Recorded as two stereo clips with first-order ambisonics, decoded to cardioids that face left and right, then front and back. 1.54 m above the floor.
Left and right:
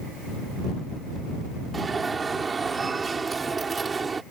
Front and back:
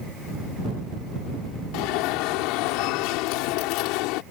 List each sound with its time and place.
1.7 s an alarm: 15° right